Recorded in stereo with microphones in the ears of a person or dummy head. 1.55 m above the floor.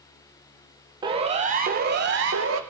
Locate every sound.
1.0 s a siren: 25° right (ahead or behind), 3 m; by 2.6 s 75° right (ahead or behind), 3 m